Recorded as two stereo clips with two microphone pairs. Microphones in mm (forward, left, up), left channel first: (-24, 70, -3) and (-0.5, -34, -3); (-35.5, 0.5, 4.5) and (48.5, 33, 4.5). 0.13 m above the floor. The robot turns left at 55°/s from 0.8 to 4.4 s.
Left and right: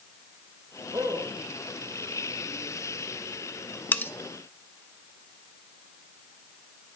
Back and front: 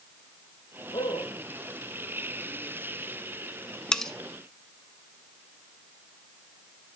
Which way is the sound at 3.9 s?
130° left.